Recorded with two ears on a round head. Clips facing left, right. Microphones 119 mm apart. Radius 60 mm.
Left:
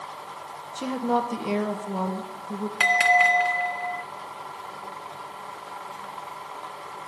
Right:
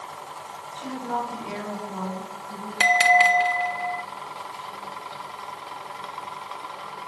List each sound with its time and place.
0.8 s a woman speaking: 60° left (ahead or behind), 1.2 m
2.8 s a bell: 35° right (ahead or behind), 0.8 m